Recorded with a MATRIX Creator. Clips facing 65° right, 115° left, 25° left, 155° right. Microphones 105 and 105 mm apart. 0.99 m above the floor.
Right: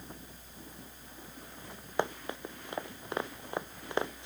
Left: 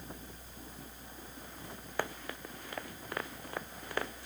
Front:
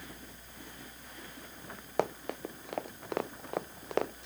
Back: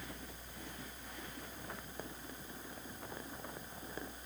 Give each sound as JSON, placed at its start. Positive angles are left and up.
{"t": 2.0, "sound": "running footsteps", "azimuth_deg": 5}